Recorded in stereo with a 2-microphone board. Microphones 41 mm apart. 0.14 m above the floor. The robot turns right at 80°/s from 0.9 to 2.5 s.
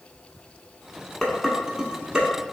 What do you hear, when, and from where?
1.2 s dishes clattering: 5° left (ahead or behind), 0.7 m; by 2.3 s 20° right (ahead or behind), 0.7 m